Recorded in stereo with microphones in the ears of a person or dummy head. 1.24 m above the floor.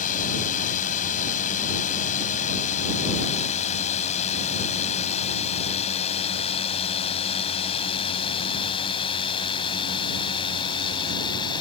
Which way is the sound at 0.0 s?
40° left (ahead or behind).